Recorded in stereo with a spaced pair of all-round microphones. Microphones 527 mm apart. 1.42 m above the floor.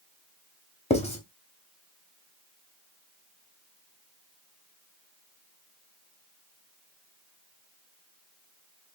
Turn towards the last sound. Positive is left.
turn(degrees=10)  # may be behind; listen again after turning